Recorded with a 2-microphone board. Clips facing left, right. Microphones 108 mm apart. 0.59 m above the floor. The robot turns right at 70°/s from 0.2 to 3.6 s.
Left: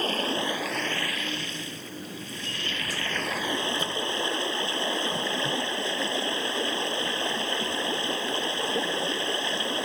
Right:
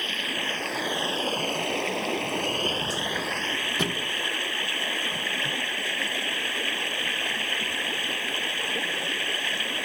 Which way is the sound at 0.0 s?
145° left.